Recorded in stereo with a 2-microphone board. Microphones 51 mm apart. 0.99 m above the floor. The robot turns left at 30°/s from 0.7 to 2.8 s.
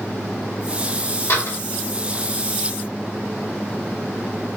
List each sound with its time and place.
1.3 s a door slam: 65° left (ahead or behind), 1.6 m; by 1.6 s 70° left (ahead or behind), 1.6 m